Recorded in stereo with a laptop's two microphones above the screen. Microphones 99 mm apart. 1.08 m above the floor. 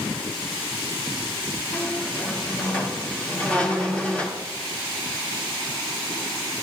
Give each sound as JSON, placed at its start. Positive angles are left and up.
{"t": 1.7, "sound": "a squeak", "side_deg": 15, "distance_m": 1.7}